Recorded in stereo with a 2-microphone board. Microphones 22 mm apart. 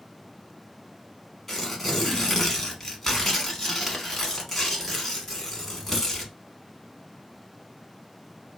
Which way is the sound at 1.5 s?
15° left (ahead or behind).